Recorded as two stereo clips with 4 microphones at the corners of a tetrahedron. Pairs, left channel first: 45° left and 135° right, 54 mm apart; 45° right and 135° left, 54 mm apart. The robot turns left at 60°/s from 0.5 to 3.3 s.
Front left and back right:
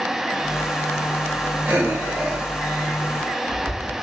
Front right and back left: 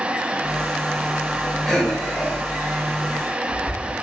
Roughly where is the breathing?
Behind right.